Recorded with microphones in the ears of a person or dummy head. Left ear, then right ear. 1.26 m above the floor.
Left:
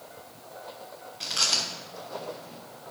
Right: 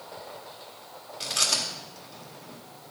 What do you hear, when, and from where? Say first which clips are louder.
1.2 s chewing: even; centre (ahead or behind), 1.6 m